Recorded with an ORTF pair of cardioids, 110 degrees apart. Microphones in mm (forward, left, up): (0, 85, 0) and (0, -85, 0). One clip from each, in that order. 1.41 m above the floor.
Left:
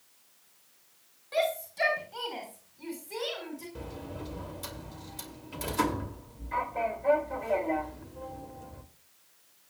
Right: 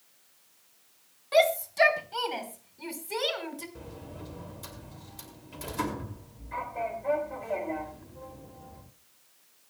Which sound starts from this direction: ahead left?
A sliding door, at 3.8 s.